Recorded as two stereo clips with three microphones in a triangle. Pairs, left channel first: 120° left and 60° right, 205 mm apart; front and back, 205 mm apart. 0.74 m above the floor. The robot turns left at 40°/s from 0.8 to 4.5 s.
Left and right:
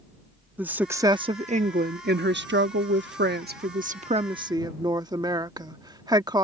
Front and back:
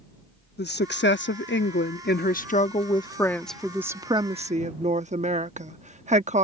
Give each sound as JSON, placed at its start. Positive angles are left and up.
{"t": 0.6, "sound": "a woman speaking", "azimuth_deg": 20}